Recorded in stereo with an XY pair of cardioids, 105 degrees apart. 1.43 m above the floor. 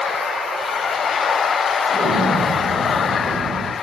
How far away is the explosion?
About 6 m.